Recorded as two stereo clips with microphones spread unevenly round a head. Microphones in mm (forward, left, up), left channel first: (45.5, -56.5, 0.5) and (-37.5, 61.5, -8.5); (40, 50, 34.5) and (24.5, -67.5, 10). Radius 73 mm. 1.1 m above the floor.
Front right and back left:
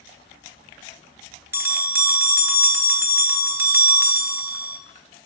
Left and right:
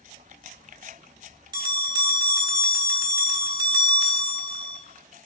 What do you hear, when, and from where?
1.5 s a bell: 165° right, 0.7 m